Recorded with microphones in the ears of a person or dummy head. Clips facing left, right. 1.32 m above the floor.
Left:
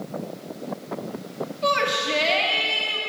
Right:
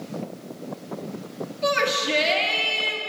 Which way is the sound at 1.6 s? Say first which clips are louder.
Right 1 dB; 20° right (ahead or behind).